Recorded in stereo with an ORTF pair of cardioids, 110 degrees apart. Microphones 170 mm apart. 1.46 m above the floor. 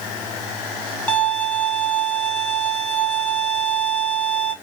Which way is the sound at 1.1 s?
10° left.